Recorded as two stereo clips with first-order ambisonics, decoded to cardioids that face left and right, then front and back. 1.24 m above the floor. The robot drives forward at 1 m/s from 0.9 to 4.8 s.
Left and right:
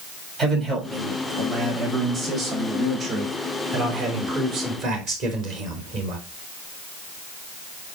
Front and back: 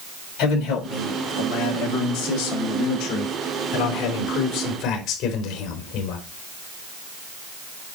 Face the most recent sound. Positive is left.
turn(degrees=-45)